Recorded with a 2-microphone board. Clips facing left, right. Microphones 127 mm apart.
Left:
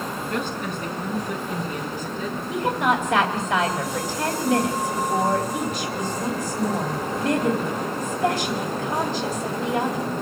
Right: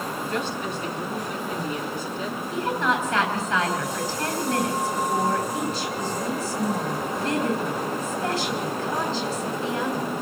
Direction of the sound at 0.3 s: 50° left (ahead or behind).